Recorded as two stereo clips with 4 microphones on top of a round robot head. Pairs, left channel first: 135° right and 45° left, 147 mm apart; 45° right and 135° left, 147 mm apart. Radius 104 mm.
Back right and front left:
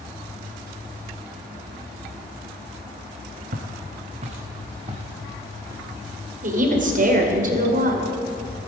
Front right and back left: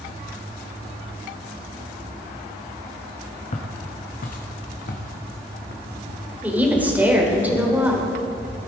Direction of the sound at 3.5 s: 5° left.